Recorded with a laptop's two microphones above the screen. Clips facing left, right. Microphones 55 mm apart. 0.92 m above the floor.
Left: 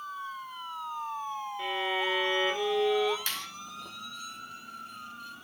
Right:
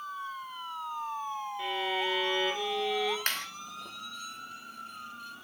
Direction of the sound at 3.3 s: 55° right (ahead or behind).